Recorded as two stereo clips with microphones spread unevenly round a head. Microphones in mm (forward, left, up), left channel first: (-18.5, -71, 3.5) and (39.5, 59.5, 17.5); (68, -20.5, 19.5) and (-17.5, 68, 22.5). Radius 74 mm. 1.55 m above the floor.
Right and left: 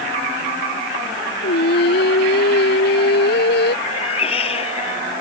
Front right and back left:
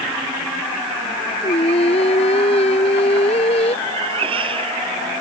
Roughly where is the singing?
Right.